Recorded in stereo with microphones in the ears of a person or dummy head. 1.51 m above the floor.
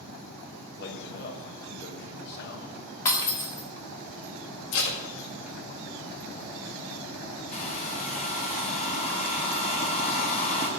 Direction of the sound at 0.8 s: 60° left (ahead or behind).